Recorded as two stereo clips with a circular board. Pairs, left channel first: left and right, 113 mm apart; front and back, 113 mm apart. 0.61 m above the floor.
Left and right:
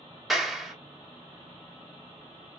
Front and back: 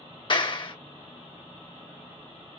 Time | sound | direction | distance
0.3 | a clap | 5° right | 0.8 m